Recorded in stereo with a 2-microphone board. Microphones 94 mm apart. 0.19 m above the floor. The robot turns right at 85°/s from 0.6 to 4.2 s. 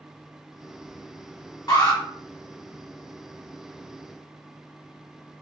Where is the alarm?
45° left (ahead or behind), 1.0 m; by 2.0 s 35° left (ahead or behind), 1.0 m.